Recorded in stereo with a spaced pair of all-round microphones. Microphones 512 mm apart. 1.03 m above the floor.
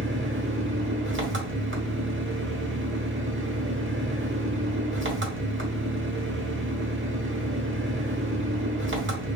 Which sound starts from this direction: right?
An engine running, at 0.0 s.